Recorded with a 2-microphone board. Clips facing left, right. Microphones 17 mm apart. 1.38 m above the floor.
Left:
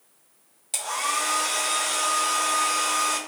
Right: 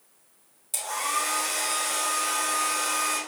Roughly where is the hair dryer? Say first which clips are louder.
Left 2 dB; left.